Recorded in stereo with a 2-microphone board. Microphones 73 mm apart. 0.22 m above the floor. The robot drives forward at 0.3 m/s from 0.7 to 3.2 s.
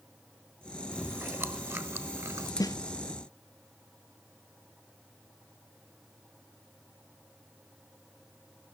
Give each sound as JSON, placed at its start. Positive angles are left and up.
{"t": 0.9, "sound": "chewing", "side_deg": -30, "distance_m": 1.3}
{"t": 2.6, "sound": "a snare drum", "side_deg": 55, "distance_m": 0.9}